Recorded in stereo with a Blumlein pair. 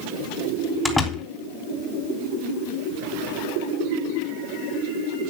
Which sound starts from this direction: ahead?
A door slam, at 0.8 s.